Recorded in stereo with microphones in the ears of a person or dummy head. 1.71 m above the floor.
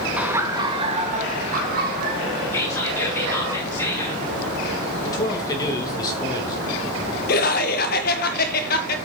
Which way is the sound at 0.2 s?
10° right (ahead or behind).